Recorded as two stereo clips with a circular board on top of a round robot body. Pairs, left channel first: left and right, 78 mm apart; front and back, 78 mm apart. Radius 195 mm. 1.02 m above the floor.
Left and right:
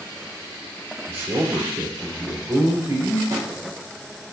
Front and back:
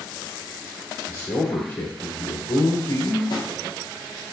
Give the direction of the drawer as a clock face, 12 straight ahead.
1 o'clock.